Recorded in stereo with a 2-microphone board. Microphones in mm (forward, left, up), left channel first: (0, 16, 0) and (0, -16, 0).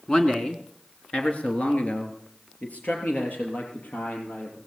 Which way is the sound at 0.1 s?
20° left (ahead or behind).